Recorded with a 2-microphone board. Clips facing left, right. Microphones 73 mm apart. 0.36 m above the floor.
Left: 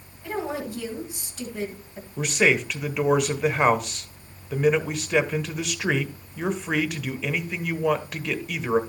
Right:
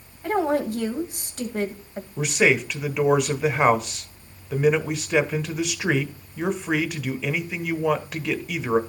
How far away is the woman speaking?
About 2.5 m.